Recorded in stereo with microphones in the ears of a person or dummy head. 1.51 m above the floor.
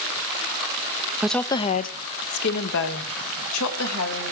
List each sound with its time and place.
1.2 s a woman speaking: 5° right (ahead or behind), 0.6 m; by 4.3 s 80° left, 3 m